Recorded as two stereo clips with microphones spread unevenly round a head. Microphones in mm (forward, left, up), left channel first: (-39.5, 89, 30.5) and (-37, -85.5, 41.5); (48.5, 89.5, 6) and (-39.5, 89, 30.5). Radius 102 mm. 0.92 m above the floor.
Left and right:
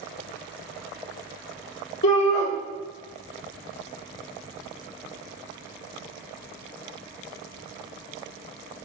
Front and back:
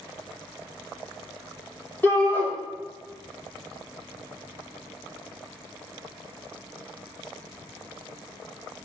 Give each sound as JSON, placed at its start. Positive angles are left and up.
{"t": 2.0, "sound": "a shout", "azimuth_deg": 65, "distance_m": 2.0}